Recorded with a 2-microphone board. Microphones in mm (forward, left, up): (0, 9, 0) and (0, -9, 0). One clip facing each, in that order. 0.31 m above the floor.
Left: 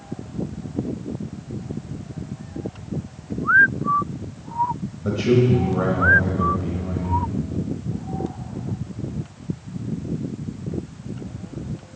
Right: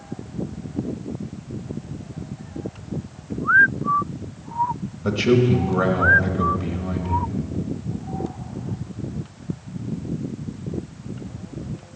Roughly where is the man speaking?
Right.